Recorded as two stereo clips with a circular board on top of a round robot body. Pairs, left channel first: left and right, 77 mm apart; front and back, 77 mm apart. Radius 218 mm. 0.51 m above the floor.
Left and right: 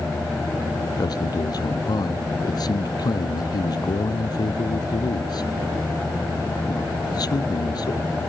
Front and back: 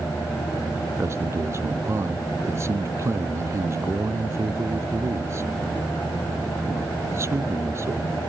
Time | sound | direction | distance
1.0 | a man speaking | 125° left | ?